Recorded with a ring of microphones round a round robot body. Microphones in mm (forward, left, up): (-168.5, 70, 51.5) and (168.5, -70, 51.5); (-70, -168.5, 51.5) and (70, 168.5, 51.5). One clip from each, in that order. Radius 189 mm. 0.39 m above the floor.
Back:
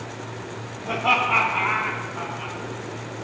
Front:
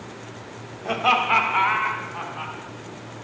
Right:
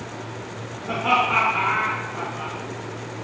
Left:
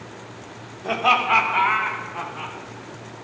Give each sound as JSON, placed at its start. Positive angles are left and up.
{"t": 0.8, "sound": "laughter", "azimuth_deg": 35, "distance_m": 2.5}